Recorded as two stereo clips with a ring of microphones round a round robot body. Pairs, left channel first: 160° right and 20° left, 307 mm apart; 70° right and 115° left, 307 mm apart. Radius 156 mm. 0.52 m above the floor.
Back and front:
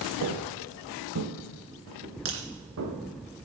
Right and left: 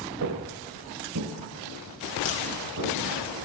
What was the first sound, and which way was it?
Footsteps, 65° left.